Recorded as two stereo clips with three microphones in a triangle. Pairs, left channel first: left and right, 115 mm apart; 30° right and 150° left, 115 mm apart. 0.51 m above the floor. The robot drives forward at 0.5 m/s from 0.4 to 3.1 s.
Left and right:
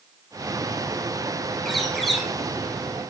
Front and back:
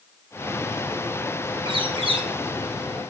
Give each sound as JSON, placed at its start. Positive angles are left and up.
{"t": 1.6, "sound": "a bird", "azimuth_deg": 180, "distance_m": 1.2}